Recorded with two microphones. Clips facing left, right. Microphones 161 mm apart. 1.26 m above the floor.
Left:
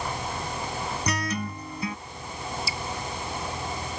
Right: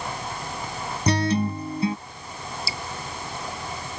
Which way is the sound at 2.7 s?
35° right (ahead or behind).